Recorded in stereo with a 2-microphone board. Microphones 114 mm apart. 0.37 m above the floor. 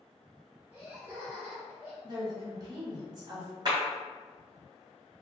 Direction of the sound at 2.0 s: 35° right (ahead or behind).